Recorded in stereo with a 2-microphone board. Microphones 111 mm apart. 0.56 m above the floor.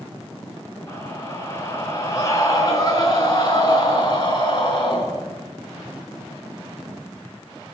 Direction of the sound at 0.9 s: 25° left (ahead or behind).